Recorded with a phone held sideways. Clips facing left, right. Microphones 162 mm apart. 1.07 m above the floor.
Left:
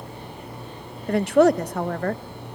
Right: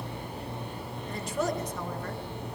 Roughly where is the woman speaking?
Left.